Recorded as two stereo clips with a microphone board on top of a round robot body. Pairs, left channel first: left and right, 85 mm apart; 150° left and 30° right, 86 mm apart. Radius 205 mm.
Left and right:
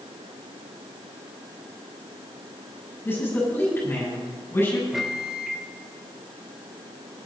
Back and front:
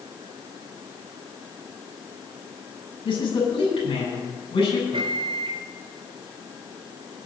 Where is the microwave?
5° right, 1.0 m.